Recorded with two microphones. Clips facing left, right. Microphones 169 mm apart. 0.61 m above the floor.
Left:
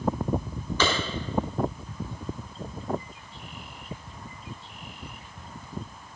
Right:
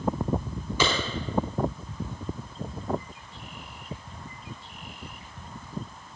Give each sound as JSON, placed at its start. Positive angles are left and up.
{"t": 0.8, "sound": "a clap", "side_deg": -10, "distance_m": 5.5}